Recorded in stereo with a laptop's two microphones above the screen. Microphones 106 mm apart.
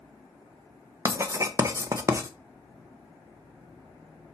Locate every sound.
1.1 s writing: 30° right (ahead or behind), 1.0 m